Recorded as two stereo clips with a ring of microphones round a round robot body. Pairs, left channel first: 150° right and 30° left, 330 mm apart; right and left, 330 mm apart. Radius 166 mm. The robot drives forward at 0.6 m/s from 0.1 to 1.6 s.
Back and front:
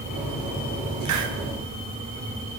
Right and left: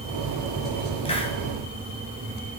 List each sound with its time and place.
1.1 s a hiss: 15° right, 3.5 m